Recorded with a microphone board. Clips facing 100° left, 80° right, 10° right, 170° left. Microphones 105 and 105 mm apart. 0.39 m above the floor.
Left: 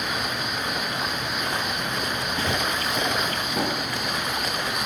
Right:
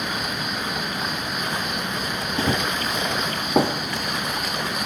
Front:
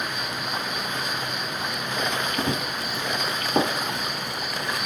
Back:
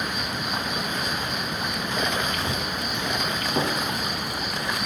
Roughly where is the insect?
Behind right.